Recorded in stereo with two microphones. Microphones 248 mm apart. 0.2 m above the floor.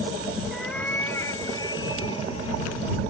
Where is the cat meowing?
Centre (ahead or behind); by 3.0 s 25° left (ahead or behind).